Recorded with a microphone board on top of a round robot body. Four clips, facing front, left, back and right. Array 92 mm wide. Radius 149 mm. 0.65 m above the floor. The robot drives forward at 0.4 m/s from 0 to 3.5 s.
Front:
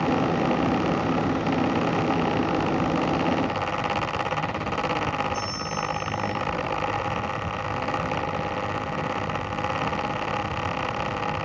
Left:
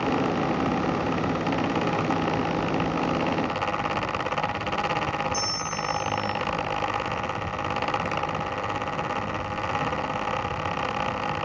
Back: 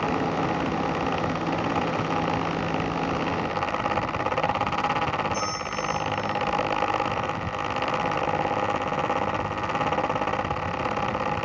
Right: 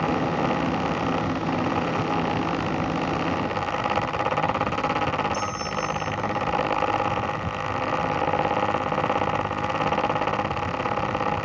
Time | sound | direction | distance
5.3 | a bell | 150° right | 4.5 m